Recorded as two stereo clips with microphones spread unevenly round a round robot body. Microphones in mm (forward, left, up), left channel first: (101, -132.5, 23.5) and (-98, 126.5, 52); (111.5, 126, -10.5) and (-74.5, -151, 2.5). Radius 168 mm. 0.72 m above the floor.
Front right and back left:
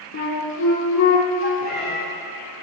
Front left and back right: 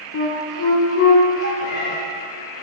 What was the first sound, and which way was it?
A flute, 5° left.